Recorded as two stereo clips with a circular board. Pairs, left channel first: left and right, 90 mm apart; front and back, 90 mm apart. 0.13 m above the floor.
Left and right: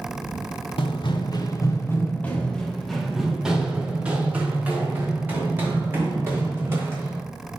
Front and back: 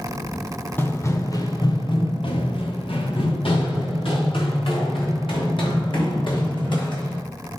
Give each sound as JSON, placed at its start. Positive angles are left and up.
{"t": 0.8, "sound": "running footsteps", "azimuth_deg": 65, "distance_m": 1.4}